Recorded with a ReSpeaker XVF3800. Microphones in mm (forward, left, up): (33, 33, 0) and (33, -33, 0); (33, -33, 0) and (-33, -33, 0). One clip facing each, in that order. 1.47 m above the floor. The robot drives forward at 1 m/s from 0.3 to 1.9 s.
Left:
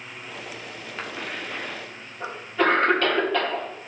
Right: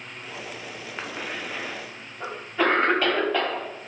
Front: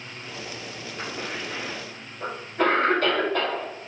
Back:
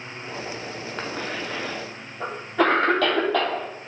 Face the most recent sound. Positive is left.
turn(degrees=-170)